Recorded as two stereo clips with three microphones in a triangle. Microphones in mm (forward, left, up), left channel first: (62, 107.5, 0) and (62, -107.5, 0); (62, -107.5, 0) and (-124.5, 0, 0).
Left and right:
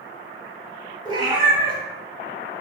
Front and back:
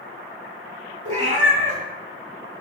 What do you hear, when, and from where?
1.1 s a cat meowing: 155° right, 0.8 m